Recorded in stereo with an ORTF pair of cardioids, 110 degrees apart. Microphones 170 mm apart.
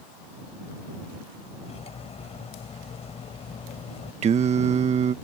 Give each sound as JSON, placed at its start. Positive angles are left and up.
{"t": 1.6, "sound": "cutlery clinking", "azimuth_deg": 40}
{"t": 4.2, "sound": "singing", "azimuth_deg": -40}